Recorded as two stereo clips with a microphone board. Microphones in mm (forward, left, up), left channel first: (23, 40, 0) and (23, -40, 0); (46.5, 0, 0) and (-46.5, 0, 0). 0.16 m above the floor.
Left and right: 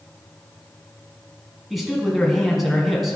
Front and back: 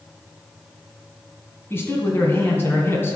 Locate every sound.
1.7 s a man speaking: straight ahead, 1.7 m